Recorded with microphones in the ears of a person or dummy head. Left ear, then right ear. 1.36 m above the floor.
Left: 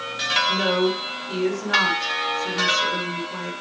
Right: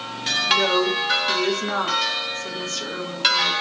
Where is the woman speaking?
70° right (ahead or behind), 3.5 m.